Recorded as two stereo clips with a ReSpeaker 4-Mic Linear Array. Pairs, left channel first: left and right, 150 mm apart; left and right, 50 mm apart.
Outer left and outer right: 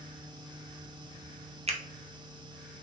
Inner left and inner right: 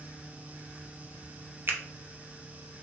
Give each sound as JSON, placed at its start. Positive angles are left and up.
{"t": 1.7, "sound": "a finger snap", "side_deg": -45, "distance_m": 0.5}